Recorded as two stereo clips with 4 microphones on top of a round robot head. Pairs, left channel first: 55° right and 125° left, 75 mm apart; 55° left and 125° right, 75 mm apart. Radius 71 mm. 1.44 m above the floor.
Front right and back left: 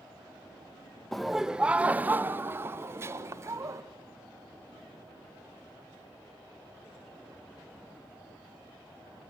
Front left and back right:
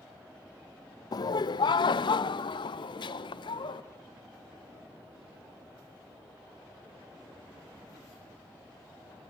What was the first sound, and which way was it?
Laughter, 30° left.